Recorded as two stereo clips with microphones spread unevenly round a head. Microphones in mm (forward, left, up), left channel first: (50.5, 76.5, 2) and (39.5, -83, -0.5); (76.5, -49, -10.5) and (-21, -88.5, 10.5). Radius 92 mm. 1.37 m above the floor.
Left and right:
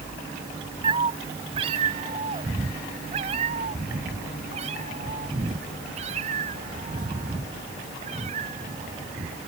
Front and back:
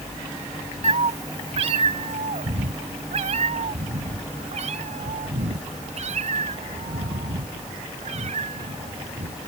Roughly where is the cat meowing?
Behind right.